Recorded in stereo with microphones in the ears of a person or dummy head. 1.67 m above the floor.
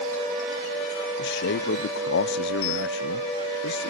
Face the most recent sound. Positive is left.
turn(degrees=70)  # may be behind; listen again after turning